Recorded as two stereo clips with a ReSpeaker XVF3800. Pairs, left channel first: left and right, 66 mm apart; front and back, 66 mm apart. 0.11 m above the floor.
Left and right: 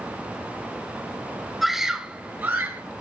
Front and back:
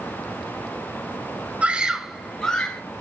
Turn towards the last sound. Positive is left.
turn(degrees=-60)